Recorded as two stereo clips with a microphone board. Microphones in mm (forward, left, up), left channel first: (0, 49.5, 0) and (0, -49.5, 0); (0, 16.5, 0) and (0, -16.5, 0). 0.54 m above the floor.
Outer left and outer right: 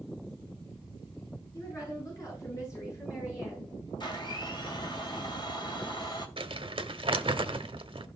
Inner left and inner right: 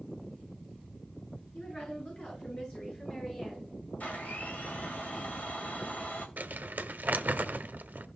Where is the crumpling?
65° right (ahead or behind), 1.0 m.